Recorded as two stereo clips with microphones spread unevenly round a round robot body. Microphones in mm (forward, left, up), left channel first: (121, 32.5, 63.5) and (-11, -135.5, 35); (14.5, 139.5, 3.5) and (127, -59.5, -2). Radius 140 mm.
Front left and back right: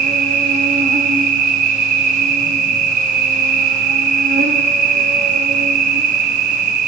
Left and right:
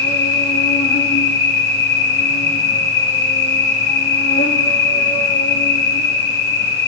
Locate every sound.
0.0 s an insect: 175° left, 0.8 m